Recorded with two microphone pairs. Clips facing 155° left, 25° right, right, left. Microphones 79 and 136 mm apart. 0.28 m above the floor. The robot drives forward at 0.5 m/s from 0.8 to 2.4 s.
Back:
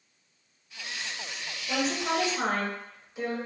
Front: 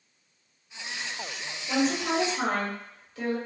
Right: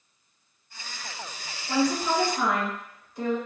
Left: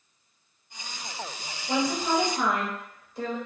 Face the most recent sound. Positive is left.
turn(degrees=110)